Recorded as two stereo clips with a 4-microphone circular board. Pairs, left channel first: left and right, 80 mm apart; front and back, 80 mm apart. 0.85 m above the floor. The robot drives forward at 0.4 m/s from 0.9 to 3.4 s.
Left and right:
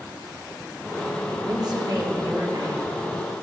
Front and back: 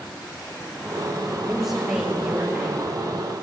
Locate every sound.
1.4 s a woman speaking: 90° right, 1.4 m; by 2.8 s 115° right, 1.5 m